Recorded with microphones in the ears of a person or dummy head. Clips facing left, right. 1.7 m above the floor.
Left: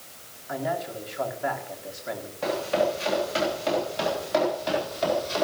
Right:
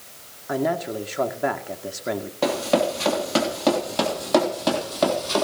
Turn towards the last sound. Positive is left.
turn(degrees=-65)  # may be behind; listen again after turning